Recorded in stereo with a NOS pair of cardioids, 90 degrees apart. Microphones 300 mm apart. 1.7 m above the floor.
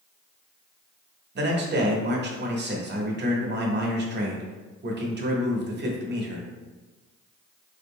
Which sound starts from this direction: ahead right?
A man speaking, at 1.4 s.